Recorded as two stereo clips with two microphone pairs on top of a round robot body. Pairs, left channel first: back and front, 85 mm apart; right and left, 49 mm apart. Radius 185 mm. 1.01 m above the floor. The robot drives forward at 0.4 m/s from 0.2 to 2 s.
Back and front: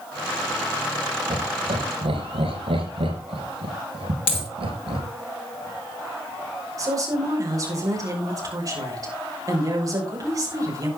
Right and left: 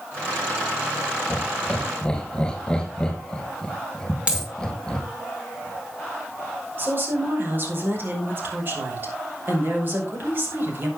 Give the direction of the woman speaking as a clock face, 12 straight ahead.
10 o'clock.